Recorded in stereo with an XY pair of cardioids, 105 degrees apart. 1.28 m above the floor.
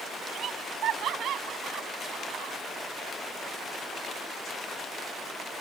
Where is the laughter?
65° right; by 2.5 s 70° right.